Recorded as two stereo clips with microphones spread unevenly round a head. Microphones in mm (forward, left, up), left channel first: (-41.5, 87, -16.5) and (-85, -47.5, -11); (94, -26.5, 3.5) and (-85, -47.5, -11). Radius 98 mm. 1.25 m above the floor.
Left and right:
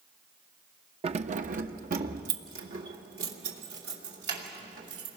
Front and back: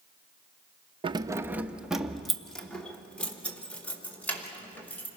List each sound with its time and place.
1.0 s keys jangling: 120° right, 0.5 m; by 5.1 s 75° right, 4 m